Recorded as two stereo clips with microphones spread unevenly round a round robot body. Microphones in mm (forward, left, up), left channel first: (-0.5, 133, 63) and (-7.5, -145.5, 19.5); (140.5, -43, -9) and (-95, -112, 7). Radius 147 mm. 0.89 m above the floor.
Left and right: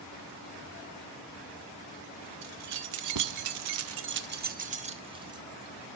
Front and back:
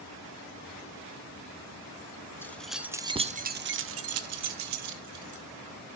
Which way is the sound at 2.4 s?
65° right.